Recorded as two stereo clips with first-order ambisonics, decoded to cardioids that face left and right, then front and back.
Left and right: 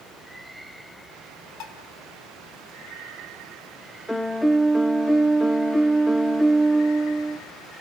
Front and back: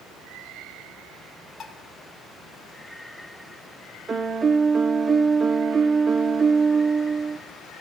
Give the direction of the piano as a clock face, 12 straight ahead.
7 o'clock.